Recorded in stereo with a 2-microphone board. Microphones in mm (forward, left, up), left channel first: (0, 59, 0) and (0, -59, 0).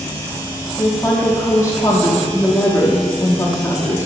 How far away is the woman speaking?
About 0.7 m.